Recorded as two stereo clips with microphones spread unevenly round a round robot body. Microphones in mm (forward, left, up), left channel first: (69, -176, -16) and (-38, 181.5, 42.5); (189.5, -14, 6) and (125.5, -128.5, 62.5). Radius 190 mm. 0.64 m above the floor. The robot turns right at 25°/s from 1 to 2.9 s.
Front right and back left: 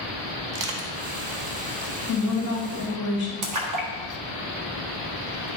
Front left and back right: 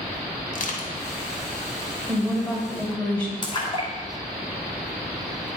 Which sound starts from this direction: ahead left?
Crushing, at 0.5 s.